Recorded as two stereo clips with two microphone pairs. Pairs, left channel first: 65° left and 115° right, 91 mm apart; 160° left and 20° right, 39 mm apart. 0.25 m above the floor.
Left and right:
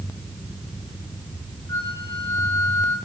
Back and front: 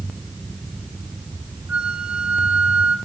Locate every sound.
1.7 s a flute: 25° left, 3.5 m